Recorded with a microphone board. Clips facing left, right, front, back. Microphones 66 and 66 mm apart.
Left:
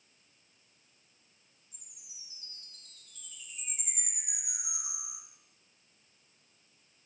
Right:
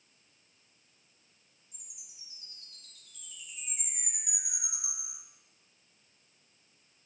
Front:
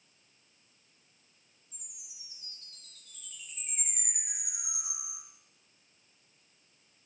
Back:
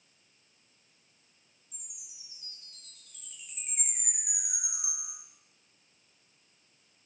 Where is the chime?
100° right, 3.5 m.